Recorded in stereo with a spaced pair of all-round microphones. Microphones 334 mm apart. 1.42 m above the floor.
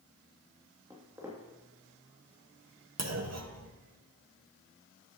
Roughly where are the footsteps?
Centre.